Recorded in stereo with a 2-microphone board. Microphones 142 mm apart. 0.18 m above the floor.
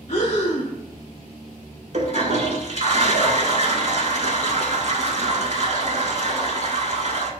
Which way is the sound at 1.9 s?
55° right (ahead or behind).